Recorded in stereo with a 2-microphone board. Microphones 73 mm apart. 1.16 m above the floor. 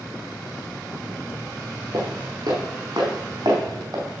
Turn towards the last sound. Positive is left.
turn(degrees=-50)  # may be behind; listen again after turning